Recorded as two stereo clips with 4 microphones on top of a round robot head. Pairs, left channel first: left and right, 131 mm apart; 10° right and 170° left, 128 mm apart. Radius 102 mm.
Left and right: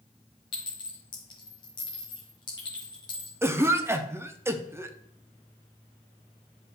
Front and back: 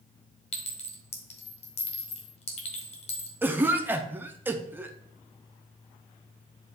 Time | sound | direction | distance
0.5 | a clink | 25° left | 1.5 m
3.4 | a cough | 135° right | 0.8 m